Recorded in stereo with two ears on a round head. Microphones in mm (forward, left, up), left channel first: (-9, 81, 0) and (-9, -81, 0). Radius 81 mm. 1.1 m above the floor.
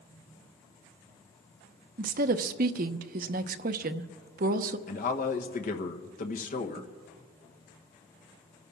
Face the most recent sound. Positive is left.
turn(degrees=45)  # may be behind; listen again after turning